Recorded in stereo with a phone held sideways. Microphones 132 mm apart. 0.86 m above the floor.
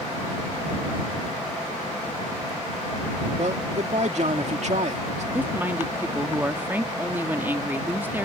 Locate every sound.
3.4 s a man speaking: 60° right (ahead or behind)
5.3 s a woman speaking: 15° right (ahead or behind)